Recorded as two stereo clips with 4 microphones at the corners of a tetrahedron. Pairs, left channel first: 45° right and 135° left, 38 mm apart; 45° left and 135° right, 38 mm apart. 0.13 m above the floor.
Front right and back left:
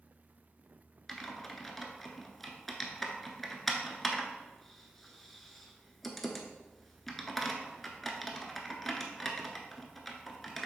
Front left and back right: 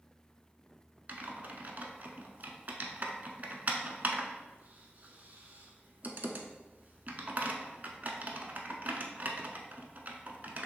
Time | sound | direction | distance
1.1 | typing on a keyboard | 130° right | 0.7 m